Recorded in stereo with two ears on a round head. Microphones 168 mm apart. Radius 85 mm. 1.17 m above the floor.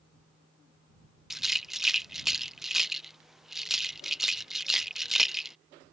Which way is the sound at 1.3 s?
Centre (ahead or behind).